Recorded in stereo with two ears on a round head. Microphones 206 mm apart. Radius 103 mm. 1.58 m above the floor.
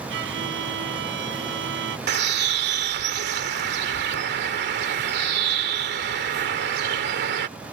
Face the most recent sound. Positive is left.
turn(degrees=-45)  # may be behind; listen again after turning